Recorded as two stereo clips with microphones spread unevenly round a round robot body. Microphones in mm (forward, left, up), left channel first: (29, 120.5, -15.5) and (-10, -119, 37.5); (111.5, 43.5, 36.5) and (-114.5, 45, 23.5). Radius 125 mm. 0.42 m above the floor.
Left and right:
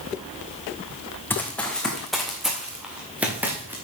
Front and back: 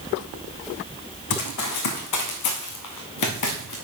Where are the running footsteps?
5° right, 2 m; by 3.7 s 20° right, 3.5 m.